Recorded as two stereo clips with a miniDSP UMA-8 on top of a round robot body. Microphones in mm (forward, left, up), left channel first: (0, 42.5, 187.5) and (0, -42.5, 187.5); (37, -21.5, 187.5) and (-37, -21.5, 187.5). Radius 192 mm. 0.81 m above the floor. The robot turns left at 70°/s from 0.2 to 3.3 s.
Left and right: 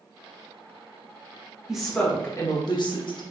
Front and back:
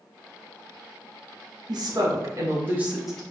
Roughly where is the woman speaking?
Behind.